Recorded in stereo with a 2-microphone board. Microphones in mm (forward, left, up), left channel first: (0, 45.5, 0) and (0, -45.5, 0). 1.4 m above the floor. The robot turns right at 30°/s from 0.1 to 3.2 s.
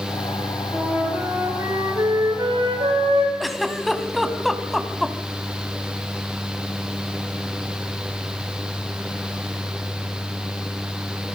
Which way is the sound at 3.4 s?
Centre (ahead or behind).